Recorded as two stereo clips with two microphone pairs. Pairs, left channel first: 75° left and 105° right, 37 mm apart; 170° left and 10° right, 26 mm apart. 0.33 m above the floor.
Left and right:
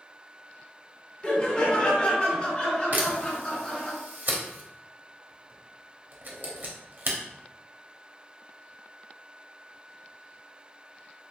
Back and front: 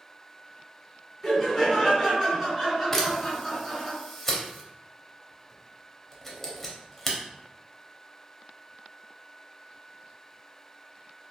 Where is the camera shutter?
110° right, 0.6 m.